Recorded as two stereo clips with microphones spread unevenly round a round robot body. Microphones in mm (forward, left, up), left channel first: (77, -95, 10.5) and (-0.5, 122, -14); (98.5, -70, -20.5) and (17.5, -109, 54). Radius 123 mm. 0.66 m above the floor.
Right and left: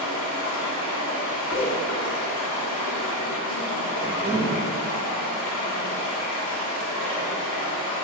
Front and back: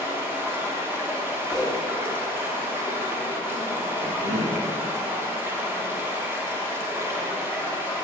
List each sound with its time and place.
0.0 s running water: 65° right, 1.2 m
1.5 s a whoosh: 25° right, 0.9 m
4.0 s a cough: 175° right, 1.2 m